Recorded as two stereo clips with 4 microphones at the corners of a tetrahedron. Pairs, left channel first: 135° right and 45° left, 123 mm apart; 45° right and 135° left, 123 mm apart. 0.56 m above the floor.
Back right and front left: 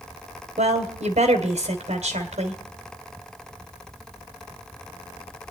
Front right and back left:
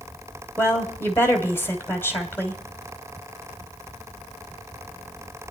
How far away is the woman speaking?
About 2.5 m.